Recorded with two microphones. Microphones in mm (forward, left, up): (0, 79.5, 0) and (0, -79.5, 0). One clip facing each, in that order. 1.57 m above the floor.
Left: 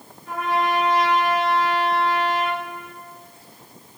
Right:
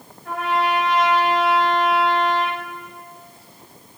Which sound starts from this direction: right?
A trumpet, at 0.2 s.